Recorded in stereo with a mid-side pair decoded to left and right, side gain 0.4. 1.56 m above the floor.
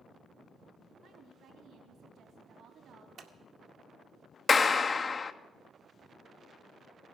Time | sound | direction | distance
1.0 | a woman speaking | 70° right | 3 m
3.2 | scissors | 65° right | 1.8 m
4.5 | a clap | 40° left | 0.8 m